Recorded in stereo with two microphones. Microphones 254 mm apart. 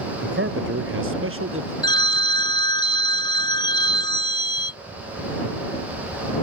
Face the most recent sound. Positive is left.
turn(degrees=20)  # may be behind; listen again after turning